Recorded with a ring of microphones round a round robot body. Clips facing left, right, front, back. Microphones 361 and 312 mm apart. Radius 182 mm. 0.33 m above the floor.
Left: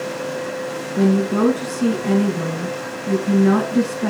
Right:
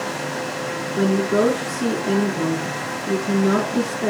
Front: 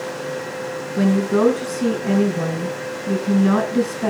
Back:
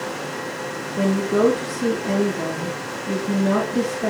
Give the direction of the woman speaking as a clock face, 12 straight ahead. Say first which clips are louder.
Left 2 dB, front 2 dB; 11 o'clock.